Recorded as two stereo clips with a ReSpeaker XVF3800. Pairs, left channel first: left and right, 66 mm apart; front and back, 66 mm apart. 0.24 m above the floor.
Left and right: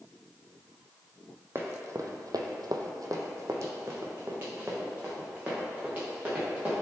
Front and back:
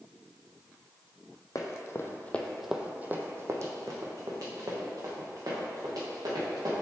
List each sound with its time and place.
1.6 s running footsteps: 35° right, 0.8 m; by 6.8 s 160° right, 2.5 m